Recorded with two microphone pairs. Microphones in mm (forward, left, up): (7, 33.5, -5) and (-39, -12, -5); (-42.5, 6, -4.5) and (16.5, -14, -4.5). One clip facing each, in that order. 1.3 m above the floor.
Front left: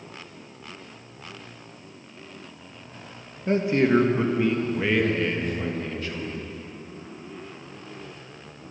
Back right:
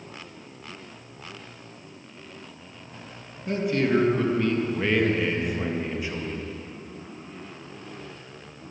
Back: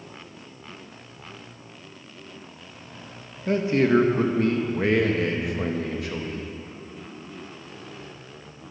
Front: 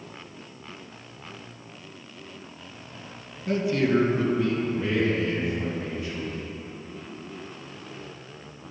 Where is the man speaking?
100° left, 1.8 m; by 6.5 s 160° left, 2 m.